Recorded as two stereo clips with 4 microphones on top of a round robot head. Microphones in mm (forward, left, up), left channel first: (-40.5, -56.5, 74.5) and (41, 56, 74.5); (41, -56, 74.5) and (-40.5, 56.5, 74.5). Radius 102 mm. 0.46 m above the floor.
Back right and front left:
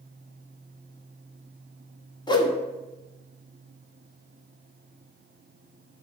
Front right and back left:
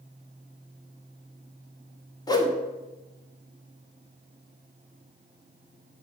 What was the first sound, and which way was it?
A whoosh, 95° right.